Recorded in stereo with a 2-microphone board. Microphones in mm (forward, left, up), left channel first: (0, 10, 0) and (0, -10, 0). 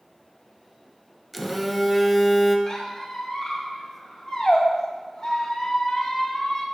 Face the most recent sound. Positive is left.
turn(degrees=40)  # may be behind; listen again after turning